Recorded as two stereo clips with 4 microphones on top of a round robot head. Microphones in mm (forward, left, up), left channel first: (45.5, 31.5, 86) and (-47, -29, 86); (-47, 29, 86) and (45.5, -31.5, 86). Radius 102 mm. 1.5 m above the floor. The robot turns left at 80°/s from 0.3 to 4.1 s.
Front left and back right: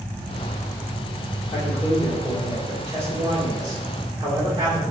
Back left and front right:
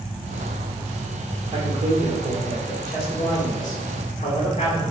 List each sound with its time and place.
1.5 s a man speaking: 15° left, 2.5 m; by 4.9 s 170° left, 2.5 m